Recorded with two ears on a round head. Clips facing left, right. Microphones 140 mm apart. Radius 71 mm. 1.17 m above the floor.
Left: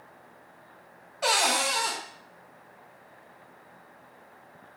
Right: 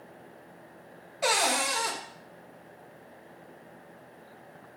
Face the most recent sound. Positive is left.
turn(degrees=-10)  # may be behind; listen again after turning